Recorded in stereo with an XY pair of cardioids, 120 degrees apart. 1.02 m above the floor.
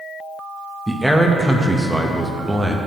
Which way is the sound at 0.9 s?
5° right.